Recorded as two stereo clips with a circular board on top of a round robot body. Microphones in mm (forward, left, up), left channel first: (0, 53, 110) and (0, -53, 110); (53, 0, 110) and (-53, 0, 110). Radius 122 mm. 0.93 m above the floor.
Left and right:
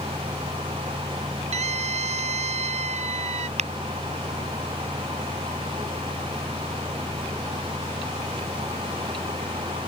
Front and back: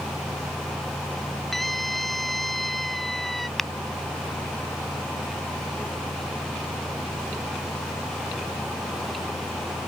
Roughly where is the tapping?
Right.